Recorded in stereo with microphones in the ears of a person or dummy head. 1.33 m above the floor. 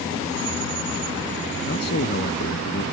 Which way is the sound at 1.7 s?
55° left (ahead or behind).